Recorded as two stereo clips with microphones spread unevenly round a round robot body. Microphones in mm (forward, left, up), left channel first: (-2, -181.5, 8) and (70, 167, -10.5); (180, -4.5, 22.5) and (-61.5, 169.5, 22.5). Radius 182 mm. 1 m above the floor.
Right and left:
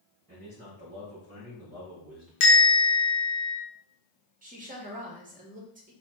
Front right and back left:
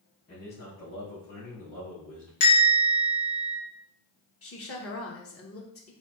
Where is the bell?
65° right, 1.5 m.